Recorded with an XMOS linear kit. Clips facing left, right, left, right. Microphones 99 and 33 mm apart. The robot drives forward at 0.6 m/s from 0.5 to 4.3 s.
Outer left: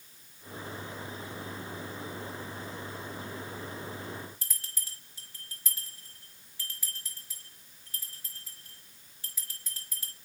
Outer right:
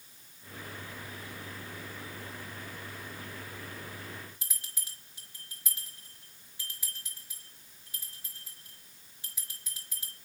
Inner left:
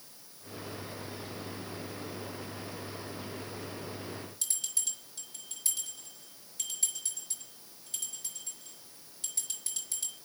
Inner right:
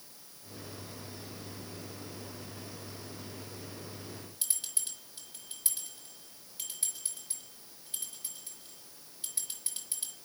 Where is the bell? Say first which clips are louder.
Outer left 2 dB, inner left 1 dB; 15° right (ahead or behind), 4.5 m.